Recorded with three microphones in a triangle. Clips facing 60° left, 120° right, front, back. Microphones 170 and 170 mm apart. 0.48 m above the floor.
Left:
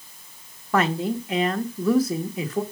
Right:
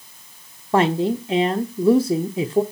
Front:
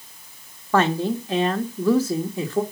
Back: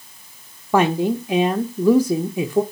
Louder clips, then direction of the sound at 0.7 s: Right 4 dB, back 3 dB; 125° right.